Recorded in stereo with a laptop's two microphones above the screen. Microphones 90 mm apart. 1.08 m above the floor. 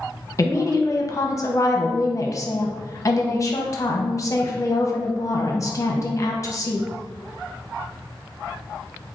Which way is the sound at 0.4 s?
35° left (ahead or behind).